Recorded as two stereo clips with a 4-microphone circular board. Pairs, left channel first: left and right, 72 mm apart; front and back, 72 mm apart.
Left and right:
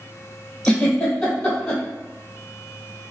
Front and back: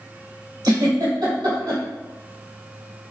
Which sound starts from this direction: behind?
A giggle, at 0.6 s.